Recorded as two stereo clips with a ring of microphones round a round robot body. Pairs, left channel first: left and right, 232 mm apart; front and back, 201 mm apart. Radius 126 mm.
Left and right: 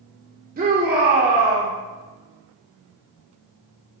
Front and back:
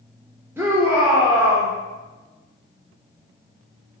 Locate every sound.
0.6 s a shout: 110° right, 1.3 m